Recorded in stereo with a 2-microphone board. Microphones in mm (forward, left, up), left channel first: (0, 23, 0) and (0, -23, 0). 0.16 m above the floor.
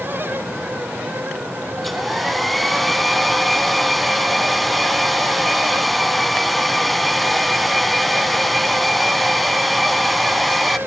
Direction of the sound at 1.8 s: Centre (ahead or behind).